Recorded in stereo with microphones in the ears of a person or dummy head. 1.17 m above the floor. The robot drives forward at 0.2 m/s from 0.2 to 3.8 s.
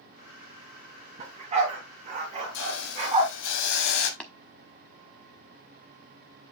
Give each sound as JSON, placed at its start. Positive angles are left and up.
{"t": 1.2, "sound": "a dog barking", "side_deg": -35, "distance_m": 2.5}
{"t": 2.5, "sound": "a hiss", "side_deg": 75, "distance_m": 1.7}
{"t": 4.2, "sound": "tapping", "side_deg": 5, "distance_m": 0.8}